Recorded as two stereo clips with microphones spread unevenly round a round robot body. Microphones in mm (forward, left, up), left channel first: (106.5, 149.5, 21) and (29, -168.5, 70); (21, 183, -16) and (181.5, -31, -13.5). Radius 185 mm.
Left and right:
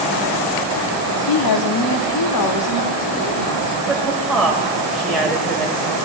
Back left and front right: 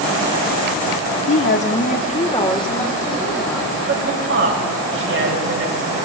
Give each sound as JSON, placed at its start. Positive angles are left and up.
{"t": 1.3, "sound": "a woman speaking", "azimuth_deg": 95, "distance_m": 1.5}
{"t": 3.9, "sound": "a woman speaking", "azimuth_deg": -15, "distance_m": 4.5}